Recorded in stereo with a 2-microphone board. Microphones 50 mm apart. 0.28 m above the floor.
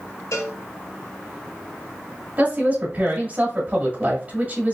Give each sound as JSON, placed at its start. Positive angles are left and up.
{"t": 0.3, "sound": "a cowbell", "side_deg": 85, "distance_m": 1.4}
{"t": 2.4, "sound": "a woman speaking", "side_deg": -30, "distance_m": 1.6}